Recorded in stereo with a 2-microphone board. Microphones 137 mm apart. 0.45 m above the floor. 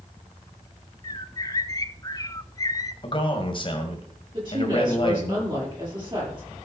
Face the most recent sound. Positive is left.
turn(degrees=-35)  # may be behind; listen again after turning